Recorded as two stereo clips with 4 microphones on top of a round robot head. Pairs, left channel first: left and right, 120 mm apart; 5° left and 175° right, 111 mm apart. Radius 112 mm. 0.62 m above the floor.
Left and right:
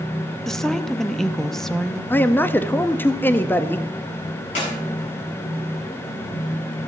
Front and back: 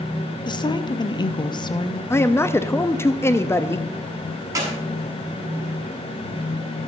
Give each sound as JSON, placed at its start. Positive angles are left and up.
{"t": 0.5, "sound": "a woman speaking", "azimuth_deg": 5, "distance_m": 0.8}
{"t": 2.1, "sound": "a man speaking", "azimuth_deg": 40, "distance_m": 0.7}
{"t": 4.5, "sound": "a clap", "azimuth_deg": 125, "distance_m": 6.5}